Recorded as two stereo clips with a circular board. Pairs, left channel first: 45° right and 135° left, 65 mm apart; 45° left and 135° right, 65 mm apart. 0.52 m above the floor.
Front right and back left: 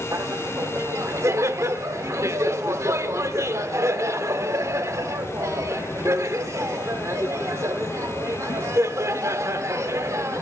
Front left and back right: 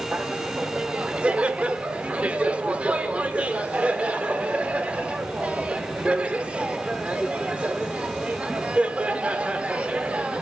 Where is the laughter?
160° left, 1.0 m.